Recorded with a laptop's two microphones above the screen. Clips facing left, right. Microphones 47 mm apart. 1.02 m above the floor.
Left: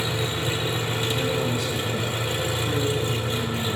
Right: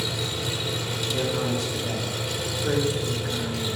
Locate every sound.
0.0 s an engine running: 30° left (ahead or behind), 0.8 m
1.1 s a man speaking: 55° right (ahead or behind), 2.5 m